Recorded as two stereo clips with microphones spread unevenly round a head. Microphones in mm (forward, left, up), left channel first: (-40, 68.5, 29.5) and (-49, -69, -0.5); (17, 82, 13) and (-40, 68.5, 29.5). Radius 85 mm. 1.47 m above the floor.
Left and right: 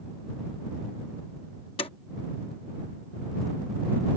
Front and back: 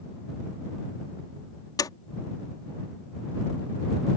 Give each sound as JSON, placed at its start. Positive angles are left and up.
{"t": 1.8, "sound": "a door slam", "azimuth_deg": 30}